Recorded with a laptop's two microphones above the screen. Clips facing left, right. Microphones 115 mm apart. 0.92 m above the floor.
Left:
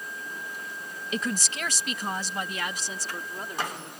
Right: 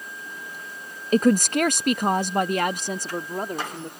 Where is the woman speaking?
45° right (ahead or behind); by 3.9 s 50° right (ahead or behind).